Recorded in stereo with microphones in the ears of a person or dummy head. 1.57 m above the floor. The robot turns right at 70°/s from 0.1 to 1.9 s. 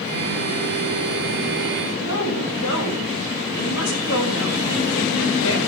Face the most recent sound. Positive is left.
turn(degrees=70)  # may be behind; listen again after turning